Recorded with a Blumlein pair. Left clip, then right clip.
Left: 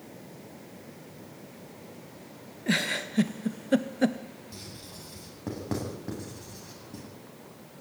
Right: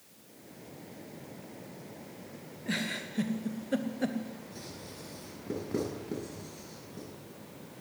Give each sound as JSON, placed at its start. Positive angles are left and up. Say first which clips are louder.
{"t": 2.7, "sound": "a giggle", "louder": "left 7 dB", "azimuth_deg": 70, "distance_m": 1.2}
{"t": 4.5, "sound": "writing", "louder": "left 1 dB", "azimuth_deg": 30, "distance_m": 9.0}